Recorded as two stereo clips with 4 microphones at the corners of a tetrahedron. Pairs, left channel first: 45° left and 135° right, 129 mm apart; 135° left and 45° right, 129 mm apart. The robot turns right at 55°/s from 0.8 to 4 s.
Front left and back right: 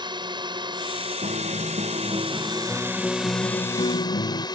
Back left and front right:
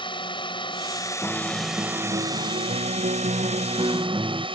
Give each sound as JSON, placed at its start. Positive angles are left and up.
{"t": 0.0, "sound": "a drone", "azimuth_deg": 180}
{"t": 1.2, "sound": "a guitar", "azimuth_deg": -140}